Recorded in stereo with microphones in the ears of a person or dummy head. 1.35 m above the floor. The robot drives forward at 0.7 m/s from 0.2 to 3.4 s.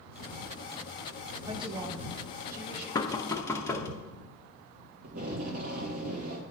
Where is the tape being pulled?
50° right (ahead or behind), 1.0 m.